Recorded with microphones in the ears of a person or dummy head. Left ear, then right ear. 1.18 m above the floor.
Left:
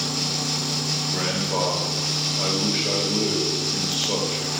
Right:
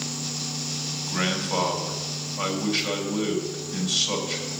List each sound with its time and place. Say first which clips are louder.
1.1 s a man speaking: left 2 dB; 25° right (ahead or behind), 3.5 m